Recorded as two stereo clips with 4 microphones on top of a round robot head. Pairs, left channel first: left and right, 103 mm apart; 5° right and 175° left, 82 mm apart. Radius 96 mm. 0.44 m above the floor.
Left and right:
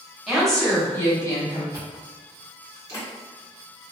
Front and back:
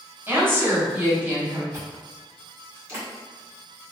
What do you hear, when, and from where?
0.3 s a woman speaking: 170° right, 1.4 m; by 1.6 s 110° left, 1.7 m
1.7 s chewing: 130° left, 1.8 m